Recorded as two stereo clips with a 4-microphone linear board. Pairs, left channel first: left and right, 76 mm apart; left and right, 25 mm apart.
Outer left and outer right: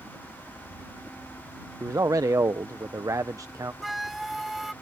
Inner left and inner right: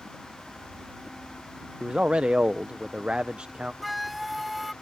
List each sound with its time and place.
0.0 s a helicopter: 10° right (ahead or behind); by 4.8 s 10° left (ahead or behind)
1.8 s a man speaking: 45° right (ahead or behind)
3.8 s a flute: centre (ahead or behind)